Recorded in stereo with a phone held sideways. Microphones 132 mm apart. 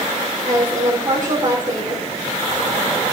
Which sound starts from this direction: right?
A woman speaking, at 0.5 s.